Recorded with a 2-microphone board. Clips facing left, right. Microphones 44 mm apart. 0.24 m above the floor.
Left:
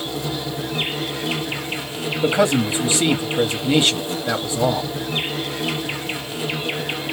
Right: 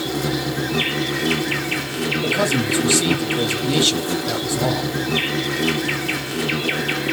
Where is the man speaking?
20° left (ahead or behind), 1.1 m.